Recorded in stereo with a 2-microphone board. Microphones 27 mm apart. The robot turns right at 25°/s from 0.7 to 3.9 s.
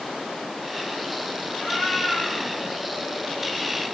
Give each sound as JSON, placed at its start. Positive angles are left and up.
{"t": 1.5, "sound": "a cat meowing", "azimuth_deg": 25, "distance_m": 4.5}